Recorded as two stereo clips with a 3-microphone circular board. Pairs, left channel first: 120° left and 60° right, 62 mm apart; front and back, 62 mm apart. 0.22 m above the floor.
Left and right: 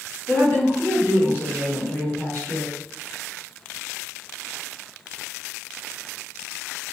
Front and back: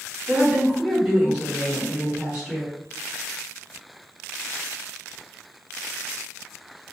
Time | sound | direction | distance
0.3 | a woman speaking | 120° left | 1.9 m